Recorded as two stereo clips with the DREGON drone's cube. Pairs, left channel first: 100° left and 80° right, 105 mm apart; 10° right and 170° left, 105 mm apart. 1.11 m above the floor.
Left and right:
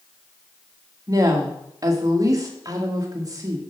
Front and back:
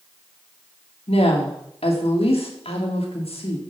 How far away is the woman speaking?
About 1.8 m.